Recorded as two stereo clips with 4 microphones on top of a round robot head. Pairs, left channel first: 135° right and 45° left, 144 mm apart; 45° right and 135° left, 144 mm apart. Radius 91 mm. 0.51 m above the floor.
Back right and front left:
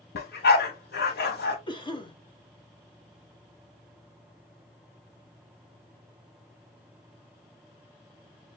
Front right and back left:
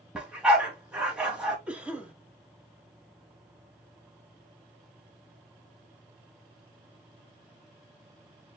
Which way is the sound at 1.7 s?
150° right.